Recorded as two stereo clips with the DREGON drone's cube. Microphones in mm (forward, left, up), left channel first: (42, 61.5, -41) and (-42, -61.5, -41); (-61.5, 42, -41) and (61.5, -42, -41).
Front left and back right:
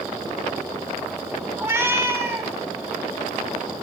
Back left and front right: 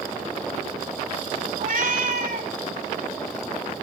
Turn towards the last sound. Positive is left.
turn(degrees=-50)